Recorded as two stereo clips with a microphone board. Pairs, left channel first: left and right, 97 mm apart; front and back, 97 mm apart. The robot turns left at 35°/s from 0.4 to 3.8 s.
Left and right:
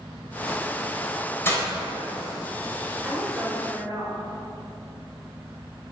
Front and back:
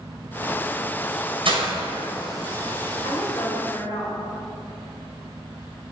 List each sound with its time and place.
1.4 s breaking glass: 155° left, 3 m; by 1.7 s 145° left, 3 m
3.0 s a woman speaking: 15° right, 3.5 m; by 4.2 s 40° right, 3.5 m